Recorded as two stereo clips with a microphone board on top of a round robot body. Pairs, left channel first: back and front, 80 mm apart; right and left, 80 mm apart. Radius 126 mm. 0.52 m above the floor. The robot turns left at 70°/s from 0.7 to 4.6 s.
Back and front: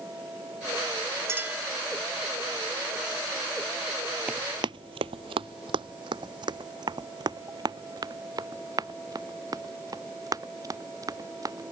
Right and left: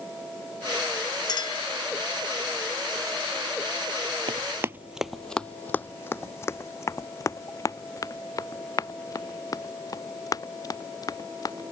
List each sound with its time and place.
1.3 s a clink: 55° right; by 1.7 s 85° right
4.3 s running footsteps: 75° left; by 11.7 s 45° right